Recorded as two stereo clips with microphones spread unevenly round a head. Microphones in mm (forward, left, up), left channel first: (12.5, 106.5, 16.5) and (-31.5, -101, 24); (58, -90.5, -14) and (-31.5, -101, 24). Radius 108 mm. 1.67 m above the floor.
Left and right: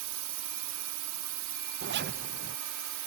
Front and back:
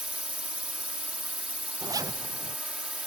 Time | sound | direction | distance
0.0 | a drone | 95° right | ?
1.8 | a zipper | 140° right | ?